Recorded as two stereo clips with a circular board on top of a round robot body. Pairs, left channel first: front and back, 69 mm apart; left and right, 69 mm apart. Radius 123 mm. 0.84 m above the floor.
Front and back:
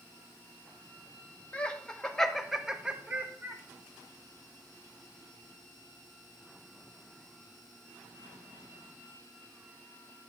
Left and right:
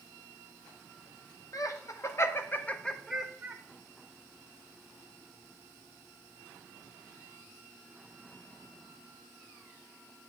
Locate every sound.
1.5 s laughter: 70° left, 1.4 m; by 3.6 s 145° right, 1.1 m